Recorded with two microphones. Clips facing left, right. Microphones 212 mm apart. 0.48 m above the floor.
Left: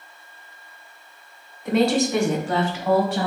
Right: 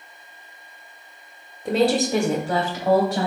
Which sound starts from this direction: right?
A woman speaking, at 1.6 s.